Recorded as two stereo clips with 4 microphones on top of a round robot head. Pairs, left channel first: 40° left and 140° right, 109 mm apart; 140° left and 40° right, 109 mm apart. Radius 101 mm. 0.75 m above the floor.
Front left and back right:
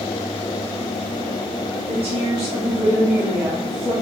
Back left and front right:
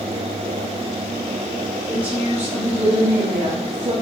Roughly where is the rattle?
No rattle in this recording.